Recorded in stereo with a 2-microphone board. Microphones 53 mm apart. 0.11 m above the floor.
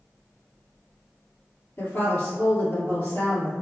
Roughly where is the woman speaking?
Left.